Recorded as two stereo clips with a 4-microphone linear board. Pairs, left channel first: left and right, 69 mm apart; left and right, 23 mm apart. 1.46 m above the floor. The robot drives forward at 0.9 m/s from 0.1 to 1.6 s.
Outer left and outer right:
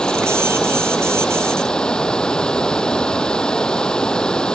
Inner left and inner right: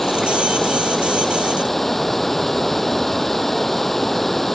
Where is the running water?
10° left (ahead or behind).